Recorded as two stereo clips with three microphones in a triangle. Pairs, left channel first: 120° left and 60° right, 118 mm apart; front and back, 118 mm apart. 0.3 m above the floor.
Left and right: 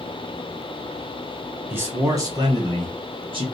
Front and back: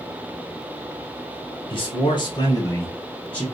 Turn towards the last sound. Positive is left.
turn(degrees=-80)